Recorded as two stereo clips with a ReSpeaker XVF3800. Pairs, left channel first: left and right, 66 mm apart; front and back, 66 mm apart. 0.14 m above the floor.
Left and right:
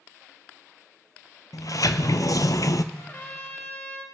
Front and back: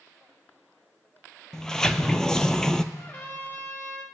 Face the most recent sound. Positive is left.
turn(degrees=45)